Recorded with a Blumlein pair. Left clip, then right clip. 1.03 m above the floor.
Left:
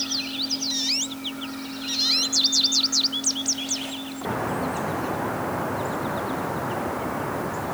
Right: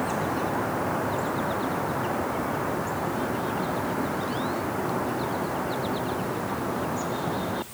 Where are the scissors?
I don't hear scissors.